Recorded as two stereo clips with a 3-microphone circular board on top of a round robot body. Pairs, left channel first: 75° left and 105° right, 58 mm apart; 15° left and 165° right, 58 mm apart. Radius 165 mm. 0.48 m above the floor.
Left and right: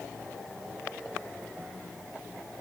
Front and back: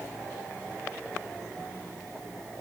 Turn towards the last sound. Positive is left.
No sound to turn to.